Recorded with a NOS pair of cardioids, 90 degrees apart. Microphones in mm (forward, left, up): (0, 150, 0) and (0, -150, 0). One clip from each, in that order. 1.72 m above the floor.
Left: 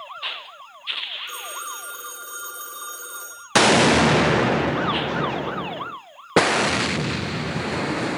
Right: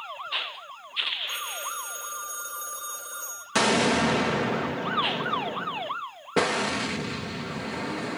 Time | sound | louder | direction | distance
1.3 | a phone ringing | even | 60° left | 3 m
3.5 | an explosion | left 7 dB | 40° left | 0.6 m